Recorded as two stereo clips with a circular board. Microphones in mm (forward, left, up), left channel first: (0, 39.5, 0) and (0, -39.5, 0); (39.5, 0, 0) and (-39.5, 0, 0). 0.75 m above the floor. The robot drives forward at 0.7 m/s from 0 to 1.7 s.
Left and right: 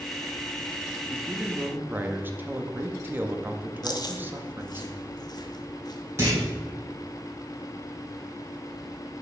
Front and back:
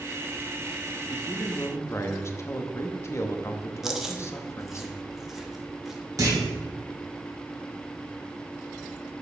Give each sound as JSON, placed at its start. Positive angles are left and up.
{"t": 1.1, "sound": "a man speaking", "azimuth_deg": -20, "distance_m": 1.1}
{"t": 3.8, "sound": "chewing", "azimuth_deg": 95, "distance_m": 0.8}
{"t": 6.2, "sound": "a clunk", "azimuth_deg": -140, "distance_m": 2.5}